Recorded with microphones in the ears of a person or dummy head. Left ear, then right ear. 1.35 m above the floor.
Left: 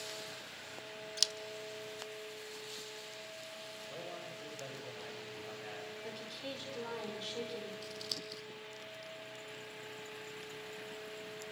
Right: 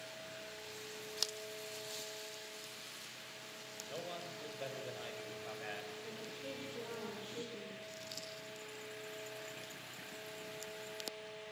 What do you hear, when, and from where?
1.2 s scissors: 20° left (ahead or behind), 1.1 m
3.9 s a man speaking: 30° right (ahead or behind), 5 m
6.0 s a woman speaking: 55° left (ahead or behind), 5 m
7.8 s scissors: 35° left (ahead or behind), 7 m